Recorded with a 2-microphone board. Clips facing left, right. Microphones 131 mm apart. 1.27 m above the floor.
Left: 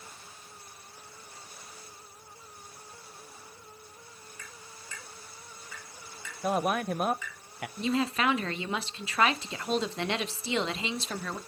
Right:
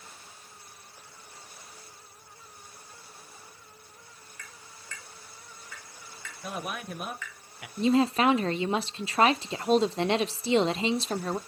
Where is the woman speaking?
30° right (ahead or behind), 0.6 m.